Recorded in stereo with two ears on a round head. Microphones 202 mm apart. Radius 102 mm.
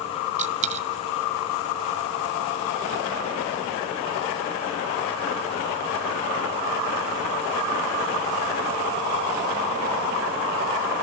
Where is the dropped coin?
30° right (ahead or behind), 1.1 m.